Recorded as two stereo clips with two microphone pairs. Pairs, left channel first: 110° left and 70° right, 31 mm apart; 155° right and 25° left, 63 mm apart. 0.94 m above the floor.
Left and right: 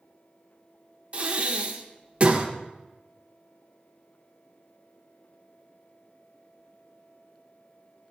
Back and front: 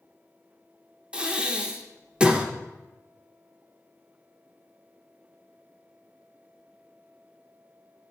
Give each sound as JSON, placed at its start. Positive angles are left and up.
{"t": 1.1, "sound": "breathing", "azimuth_deg": -40, "distance_m": 0.7}